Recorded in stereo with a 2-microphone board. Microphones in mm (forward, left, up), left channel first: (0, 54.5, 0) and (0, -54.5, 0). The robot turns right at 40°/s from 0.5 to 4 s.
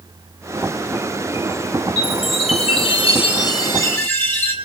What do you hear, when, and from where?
2.0 s a chime: 75° left, 8 m; by 4.5 s 160° left, 8 m